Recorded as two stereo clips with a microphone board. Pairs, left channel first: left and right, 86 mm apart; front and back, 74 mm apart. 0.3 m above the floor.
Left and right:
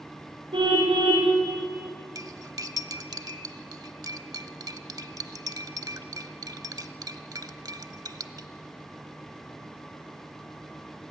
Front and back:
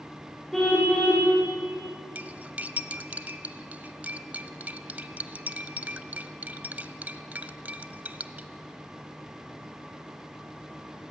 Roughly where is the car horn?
Right.